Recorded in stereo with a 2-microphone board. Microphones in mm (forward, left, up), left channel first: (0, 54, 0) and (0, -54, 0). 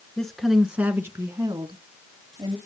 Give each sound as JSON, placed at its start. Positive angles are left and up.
{"t": 0.2, "sound": "a woman speaking", "side_deg": 5, "distance_m": 1.7}